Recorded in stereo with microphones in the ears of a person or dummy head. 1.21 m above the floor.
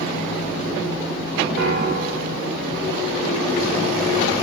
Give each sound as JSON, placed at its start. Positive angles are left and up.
{"t": 1.6, "sound": "a piano", "side_deg": -55, "distance_m": 0.5}